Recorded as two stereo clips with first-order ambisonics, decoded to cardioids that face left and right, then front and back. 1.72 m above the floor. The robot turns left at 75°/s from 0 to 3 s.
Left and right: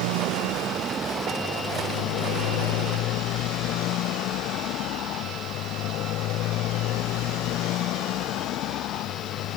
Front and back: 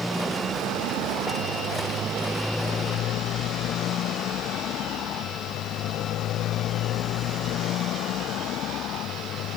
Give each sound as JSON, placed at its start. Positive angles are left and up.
{"t": 0.0, "sound": "a motorcycle", "azimuth_deg": -85}